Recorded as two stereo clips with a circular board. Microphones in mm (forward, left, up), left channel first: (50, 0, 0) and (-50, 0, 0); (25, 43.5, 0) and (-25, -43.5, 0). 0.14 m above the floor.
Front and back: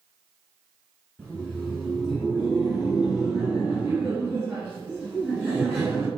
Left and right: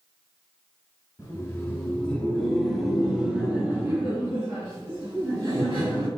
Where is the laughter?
70° left, 1.9 m; by 6.1 s 115° right, 2.5 m.